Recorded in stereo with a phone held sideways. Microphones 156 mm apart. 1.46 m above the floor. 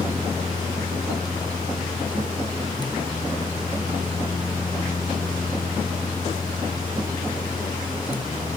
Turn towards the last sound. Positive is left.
turn(degrees=30)  # may be behind; listen again after turning